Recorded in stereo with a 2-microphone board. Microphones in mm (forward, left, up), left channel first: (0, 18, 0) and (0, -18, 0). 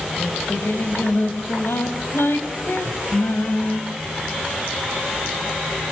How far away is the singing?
About 4 m.